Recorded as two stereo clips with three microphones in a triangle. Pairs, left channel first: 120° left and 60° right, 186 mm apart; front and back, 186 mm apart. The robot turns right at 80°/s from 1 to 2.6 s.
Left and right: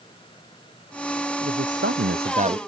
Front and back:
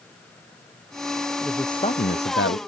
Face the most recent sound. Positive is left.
turn(degrees=5)